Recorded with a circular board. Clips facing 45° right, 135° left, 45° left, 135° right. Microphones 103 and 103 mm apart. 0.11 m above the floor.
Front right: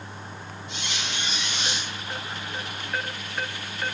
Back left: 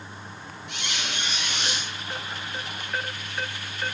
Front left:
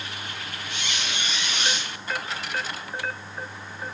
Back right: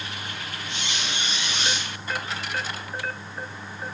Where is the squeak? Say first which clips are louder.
Back left 1 dB, even; 160° left, 6 m.